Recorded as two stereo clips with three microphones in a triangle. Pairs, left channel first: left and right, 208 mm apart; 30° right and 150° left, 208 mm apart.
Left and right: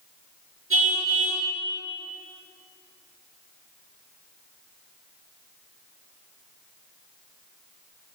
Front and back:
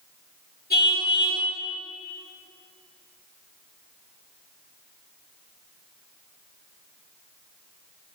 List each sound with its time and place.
0.7 s a car horn: 75° right, 6.5 m